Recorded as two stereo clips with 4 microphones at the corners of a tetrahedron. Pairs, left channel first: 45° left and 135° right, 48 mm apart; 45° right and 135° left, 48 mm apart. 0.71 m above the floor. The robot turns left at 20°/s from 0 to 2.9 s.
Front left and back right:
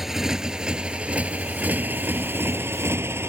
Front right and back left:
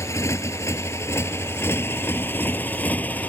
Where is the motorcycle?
50° right; by 3.3 s 100° right.